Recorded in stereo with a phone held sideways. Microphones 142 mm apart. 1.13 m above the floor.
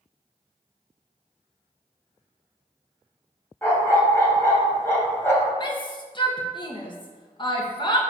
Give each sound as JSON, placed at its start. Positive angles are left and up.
{"t": 3.6, "sound": "a dog barking", "side_deg": 15, "distance_m": 2.0}
{"t": 5.6, "sound": "a shout", "side_deg": 35, "distance_m": 1.1}